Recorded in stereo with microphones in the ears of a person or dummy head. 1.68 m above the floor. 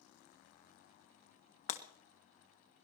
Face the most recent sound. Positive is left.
turn(degrees=40)  # may be behind; listen again after turning